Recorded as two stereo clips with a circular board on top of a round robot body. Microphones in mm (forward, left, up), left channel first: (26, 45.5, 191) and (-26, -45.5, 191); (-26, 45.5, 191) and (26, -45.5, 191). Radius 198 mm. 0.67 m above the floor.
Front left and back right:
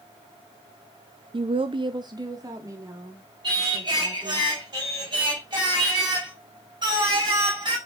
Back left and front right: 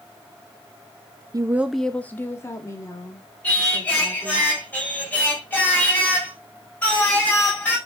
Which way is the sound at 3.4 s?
165° right.